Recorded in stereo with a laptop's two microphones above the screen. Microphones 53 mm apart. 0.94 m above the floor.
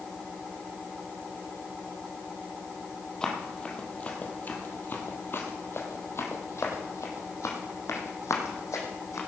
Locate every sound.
3.2 s running footsteps: 15° left (ahead or behind), 2 m; by 9.2 s 70° left (ahead or behind), 3 m